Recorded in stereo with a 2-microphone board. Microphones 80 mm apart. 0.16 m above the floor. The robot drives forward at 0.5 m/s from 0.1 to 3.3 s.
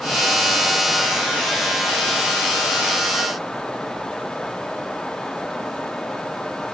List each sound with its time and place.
Only background noise.